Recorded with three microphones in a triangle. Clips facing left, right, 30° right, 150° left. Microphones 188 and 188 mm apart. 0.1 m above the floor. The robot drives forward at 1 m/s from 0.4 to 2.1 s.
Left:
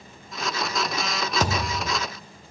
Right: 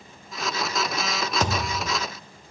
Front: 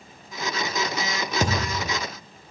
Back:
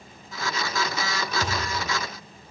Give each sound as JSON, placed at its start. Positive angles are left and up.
{"t": 1.4, "sound": "a thud", "azimuth_deg": 5, "distance_m": 1.4}